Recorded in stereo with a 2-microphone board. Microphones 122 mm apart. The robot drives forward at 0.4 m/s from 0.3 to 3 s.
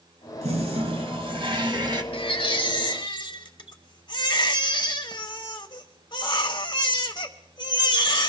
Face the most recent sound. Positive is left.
turn(degrees=40)  # may be behind; listen again after turning